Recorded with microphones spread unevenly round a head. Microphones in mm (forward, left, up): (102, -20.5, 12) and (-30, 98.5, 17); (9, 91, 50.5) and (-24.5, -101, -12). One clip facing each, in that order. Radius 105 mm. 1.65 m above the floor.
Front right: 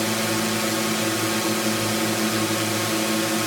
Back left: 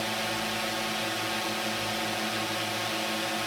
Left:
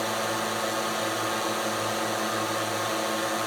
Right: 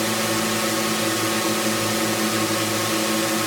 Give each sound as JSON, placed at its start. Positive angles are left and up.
{"t": 0.0, "sound": "a drone", "azimuth_deg": -65}